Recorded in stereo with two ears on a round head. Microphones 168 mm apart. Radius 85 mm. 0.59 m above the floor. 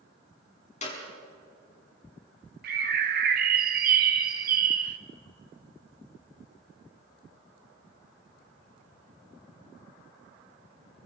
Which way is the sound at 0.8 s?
40° left (ahead or behind).